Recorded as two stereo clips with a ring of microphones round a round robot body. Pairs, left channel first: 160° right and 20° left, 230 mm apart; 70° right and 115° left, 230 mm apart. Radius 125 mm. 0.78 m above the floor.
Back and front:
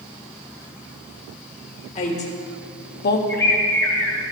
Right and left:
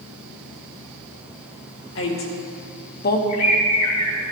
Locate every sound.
1.9 s a woman speaking: 95° right, 1.9 m; by 3.2 s 115° right, 0.9 m
3.3 s a bird: 80° right, 2.5 m